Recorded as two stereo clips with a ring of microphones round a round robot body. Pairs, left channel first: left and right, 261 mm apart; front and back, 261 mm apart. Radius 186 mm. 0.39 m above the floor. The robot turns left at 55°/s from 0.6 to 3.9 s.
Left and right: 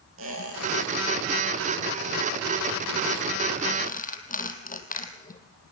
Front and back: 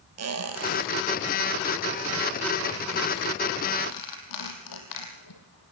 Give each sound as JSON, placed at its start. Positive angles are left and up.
{"t": 0.2, "sound": "a squeak", "azimuth_deg": -150, "distance_m": 2.5}